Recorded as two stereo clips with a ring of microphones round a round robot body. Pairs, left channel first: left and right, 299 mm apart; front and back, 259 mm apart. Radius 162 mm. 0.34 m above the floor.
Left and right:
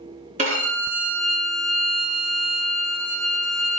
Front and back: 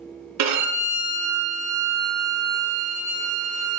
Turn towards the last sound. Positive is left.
turn(degrees=-155)